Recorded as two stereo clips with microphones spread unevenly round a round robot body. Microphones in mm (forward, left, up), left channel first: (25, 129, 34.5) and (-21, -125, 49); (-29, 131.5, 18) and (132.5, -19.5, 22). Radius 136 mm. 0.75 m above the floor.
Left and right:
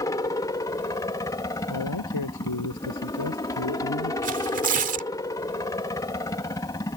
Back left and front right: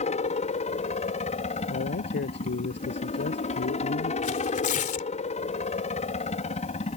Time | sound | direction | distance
0.0 | a helicopter | 140° left | ?
1.7 | a man speaking | 100° left | ?
4.2 | tearing paper | 160° right | ?